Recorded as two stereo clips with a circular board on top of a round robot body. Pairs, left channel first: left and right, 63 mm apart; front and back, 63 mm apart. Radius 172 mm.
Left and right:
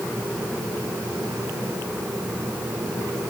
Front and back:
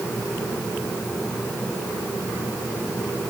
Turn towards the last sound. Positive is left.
No sound to turn to.